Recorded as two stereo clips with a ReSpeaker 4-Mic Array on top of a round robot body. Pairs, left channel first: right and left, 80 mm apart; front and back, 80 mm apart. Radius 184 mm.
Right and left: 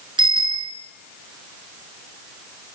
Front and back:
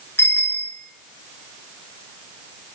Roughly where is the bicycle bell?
Ahead left.